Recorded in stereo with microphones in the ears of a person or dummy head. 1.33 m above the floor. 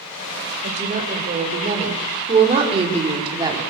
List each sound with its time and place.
0.6 s a woman speaking: 40° right (ahead or behind), 6 m; by 3.6 s 20° right (ahead or behind), 4 m